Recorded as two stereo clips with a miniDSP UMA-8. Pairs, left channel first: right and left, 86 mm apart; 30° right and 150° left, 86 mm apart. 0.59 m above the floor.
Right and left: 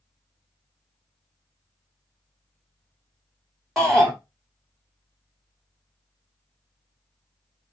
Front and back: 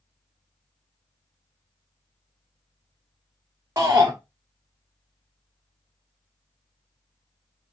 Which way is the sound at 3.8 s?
Straight behind.